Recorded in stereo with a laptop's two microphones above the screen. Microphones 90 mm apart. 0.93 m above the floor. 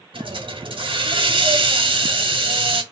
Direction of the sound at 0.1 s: 70° right (ahead or behind).